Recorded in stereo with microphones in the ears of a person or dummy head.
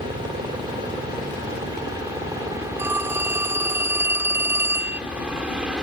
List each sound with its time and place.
0.0 s a helicopter: 25° right (ahead or behind); by 5.8 s 5° right (ahead or behind)
2.8 s a phone ringing: 10° right (ahead or behind)